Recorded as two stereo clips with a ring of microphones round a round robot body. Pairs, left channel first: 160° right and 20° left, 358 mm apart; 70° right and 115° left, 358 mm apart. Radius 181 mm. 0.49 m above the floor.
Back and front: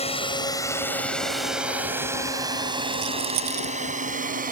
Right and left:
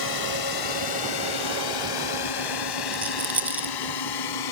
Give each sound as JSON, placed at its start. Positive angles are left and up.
{"t": 0.0, "sound": "a drone", "azimuth_deg": -85}
{"t": 2.9, "sound": "a rattle", "azimuth_deg": 25}